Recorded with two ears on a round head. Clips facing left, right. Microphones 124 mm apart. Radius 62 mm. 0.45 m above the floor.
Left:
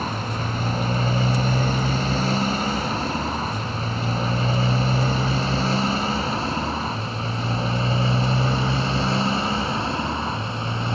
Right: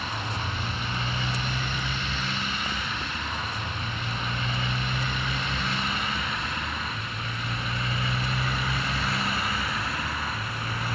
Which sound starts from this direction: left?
A motorcycle, at 0.0 s.